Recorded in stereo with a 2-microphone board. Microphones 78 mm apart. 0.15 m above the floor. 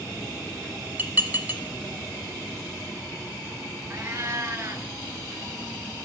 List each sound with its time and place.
1.0 s dishes clattering: 25° right (ahead or behind), 1.2 m
3.9 s a cat meowing: 40° right (ahead or behind), 1.1 m